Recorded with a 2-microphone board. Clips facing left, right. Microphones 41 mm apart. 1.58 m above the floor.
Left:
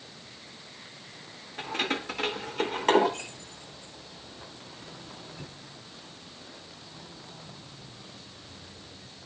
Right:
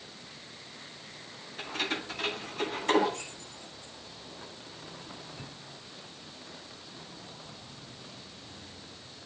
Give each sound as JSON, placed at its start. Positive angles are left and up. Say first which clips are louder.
{"t": 1.6, "sound": "keys jangling", "louder": "left 3 dB", "side_deg": 65, "distance_m": 3.5}